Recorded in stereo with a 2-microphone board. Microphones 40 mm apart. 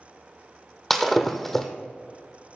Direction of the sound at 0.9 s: 5° left (ahead or behind).